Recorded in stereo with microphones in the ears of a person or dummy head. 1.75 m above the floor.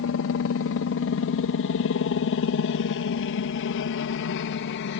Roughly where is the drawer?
I don't hear a drawer.